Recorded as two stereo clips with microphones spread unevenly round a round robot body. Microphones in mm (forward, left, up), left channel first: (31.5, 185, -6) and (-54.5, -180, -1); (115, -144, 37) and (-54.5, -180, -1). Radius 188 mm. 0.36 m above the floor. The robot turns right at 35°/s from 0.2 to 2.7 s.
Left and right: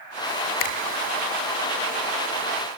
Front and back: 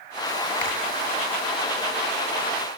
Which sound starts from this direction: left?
A finger snap, at 0.6 s.